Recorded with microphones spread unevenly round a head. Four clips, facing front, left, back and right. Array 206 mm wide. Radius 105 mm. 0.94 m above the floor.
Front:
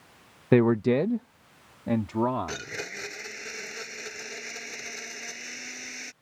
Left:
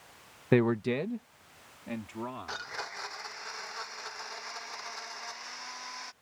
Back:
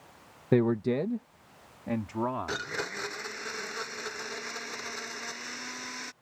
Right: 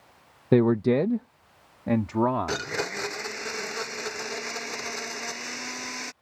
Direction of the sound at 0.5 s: 55° right.